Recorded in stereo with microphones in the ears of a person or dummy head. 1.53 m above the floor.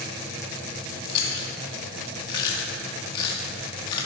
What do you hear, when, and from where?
1.1 s chewing: 25° left (ahead or behind), 2 m